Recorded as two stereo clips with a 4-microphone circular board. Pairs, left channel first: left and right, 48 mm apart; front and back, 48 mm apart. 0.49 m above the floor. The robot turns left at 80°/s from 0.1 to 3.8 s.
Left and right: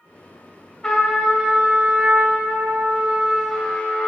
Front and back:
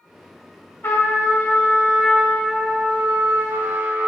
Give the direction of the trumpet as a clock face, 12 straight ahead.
11 o'clock.